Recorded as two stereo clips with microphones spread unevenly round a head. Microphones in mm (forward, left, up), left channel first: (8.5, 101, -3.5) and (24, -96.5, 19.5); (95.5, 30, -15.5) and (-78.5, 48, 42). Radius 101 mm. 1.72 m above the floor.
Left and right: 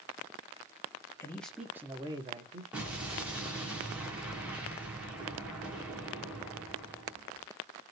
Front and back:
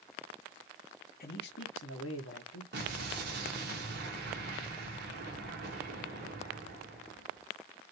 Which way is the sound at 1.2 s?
20° left.